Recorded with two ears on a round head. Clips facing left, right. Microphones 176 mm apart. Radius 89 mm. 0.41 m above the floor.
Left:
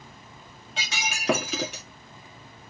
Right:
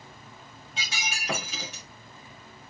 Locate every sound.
0.8 s breaking glass: 55° left (ahead or behind), 1.7 m